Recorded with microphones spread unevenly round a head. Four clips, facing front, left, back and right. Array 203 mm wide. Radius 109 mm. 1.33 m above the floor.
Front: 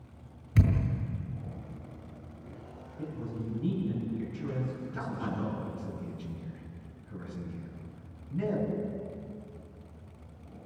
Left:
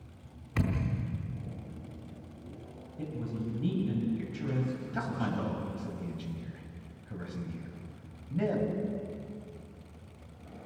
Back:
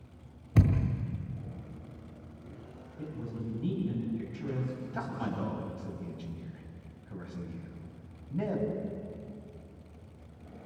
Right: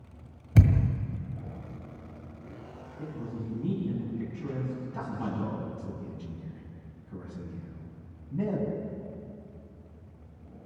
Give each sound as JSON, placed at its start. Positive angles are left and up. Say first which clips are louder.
{"t": 0.6, "sound": "a thud", "louder": "right 6 dB, back 1 dB", "azimuth_deg": -140, "distance_m": 1.9}
{"t": 3.0, "sound": "a man speaking", "louder": "left 1 dB, front 1 dB", "azimuth_deg": 90, "distance_m": 8.0}
{"t": 4.9, "sound": "a man speaking", "louder": "left 2 dB, even", "azimuth_deg": 115, "distance_m": 7.5}